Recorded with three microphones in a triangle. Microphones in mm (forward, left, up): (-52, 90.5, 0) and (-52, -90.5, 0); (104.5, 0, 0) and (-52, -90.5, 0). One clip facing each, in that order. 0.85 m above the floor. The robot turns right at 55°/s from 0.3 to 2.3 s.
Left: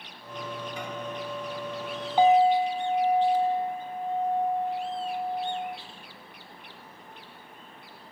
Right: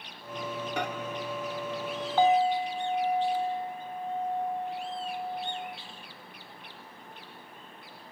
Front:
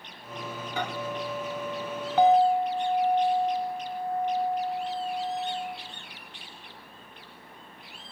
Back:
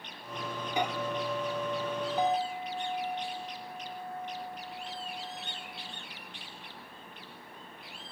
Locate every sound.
0.8 s a microwave: 75° right, 1.5 m; by 0.9 s 70° right, 1.5 m
2.2 s a clink: 20° left, 1.1 m; by 5.8 s 25° left, 1.1 m